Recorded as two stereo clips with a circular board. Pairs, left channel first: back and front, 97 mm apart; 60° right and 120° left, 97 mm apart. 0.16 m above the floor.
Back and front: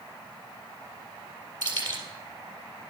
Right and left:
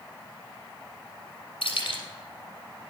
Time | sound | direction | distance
1.6 | keys jangling | 35° right | 3 m